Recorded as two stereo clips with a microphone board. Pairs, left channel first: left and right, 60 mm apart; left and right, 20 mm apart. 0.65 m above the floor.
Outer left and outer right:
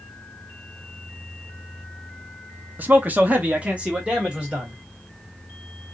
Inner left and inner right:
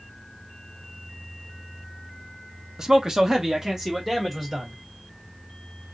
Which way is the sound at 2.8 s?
30° right (ahead or behind).